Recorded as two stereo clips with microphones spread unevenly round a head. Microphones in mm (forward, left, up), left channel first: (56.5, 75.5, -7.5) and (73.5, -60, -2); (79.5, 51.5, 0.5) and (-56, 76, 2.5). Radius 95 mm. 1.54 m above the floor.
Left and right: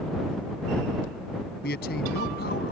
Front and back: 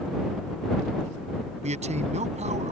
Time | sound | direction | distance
1.6 | a man speaking | 135° left | ?